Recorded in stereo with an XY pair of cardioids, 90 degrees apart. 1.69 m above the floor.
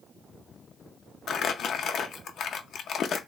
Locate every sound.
1.3 s crumpling: 70° left, 0.6 m